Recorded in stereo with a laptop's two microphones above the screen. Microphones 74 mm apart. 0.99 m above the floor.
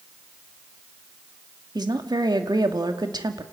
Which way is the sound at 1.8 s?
65° right (ahead or behind).